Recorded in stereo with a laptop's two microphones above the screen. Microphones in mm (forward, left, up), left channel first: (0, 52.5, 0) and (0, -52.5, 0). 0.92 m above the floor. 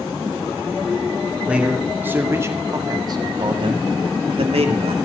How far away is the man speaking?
About 2.5 m.